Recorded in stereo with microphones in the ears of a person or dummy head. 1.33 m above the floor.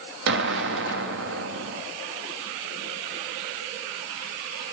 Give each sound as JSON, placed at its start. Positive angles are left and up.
{"t": 0.3, "sound": "an explosion", "side_deg": -55, "distance_m": 1.0}